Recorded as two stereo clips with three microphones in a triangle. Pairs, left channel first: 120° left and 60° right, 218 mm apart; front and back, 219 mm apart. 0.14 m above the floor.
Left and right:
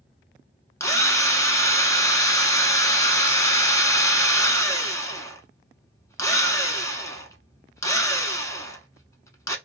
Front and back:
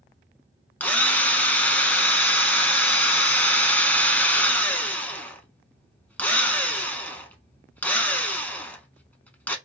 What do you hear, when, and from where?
0.8 s a drill: 70° left, 0.6 m